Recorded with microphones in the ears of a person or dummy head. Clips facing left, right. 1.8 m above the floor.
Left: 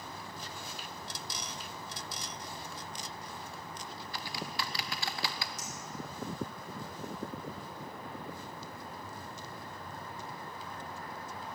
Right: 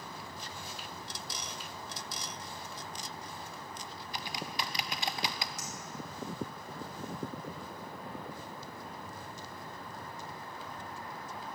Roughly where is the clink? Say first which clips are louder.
Right 1 dB; right.